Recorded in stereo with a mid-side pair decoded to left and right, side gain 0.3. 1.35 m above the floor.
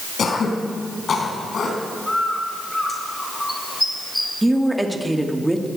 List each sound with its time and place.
0.2 s throat clearing: 70° left, 3.5 m
2.1 s a bird: 20° left, 4.5 m
4.4 s a woman speaking: 10° right, 2.5 m